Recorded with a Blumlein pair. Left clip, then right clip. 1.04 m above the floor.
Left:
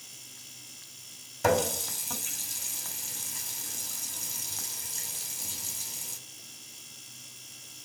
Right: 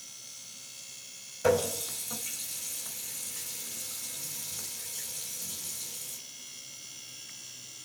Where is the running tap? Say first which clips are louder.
Left 1 dB; 30° left, 1.7 m.